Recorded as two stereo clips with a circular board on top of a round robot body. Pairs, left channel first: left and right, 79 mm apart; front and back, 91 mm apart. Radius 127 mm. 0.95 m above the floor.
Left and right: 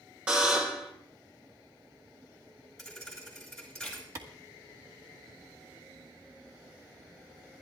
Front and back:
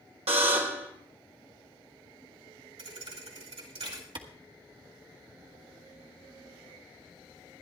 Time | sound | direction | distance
0.3 | a buzzer | 165° right | 1.3 m
2.8 | a thud | 175° left | 3.5 m
4.2 | a clap | 140° right | 1.2 m